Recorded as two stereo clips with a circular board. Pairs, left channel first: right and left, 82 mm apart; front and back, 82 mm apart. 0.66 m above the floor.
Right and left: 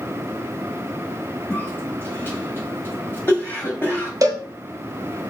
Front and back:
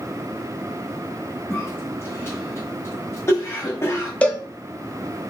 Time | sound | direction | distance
1.5 | a cough | 40° right | 1.5 m
4.2 | a cowbell | 70° left | 0.8 m